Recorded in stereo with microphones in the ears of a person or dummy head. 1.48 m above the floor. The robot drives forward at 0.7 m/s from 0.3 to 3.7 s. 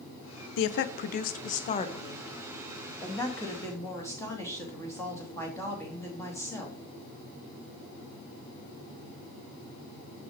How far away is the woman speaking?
About 0.7 m.